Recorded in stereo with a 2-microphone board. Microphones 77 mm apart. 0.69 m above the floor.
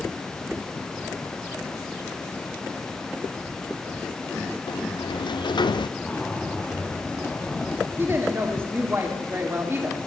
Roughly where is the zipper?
Centre.